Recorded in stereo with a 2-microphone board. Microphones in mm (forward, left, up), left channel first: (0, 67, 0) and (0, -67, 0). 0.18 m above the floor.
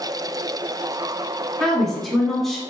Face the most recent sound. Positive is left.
turn(degrees=0)  # may be behind; listen again after turning